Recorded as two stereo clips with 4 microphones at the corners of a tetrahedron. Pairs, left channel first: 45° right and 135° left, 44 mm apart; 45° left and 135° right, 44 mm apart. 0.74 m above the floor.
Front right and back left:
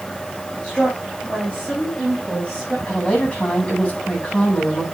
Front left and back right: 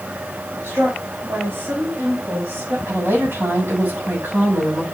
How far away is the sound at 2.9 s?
About 6.5 m.